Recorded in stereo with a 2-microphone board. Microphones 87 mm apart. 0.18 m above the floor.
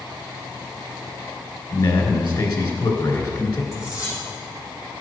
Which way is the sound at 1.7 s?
55° left (ahead or behind).